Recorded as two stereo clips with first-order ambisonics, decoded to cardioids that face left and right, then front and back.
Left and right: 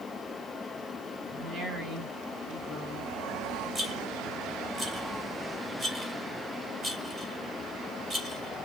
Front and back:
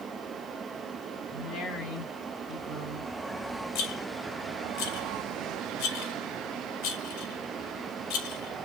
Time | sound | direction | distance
1.3 | a woman speaking | 45° right | 3 m
3.8 | a rattle | 15° right | 1.9 m